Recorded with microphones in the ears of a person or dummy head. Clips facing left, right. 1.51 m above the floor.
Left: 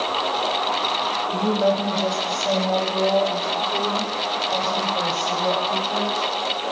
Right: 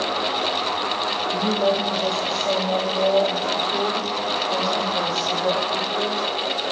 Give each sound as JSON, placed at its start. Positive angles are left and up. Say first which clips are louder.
{"t": 1.3, "sound": "a woman speaking", "louder": "left 1 dB", "side_deg": 10, "distance_m": 2.5}